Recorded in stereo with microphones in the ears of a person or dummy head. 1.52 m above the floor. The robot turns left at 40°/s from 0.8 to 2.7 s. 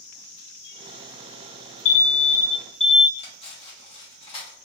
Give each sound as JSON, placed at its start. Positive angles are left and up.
{"t": 1.9, "sound": "an alarm", "azimuth_deg": 35, "distance_m": 0.5}
{"t": 3.2, "sound": "cutlery clinking", "side_deg": 30, "distance_m": 1.2}